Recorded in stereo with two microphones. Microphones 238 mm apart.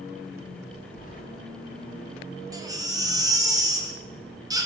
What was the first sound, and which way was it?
Keys jangling, 35° left (ahead or behind).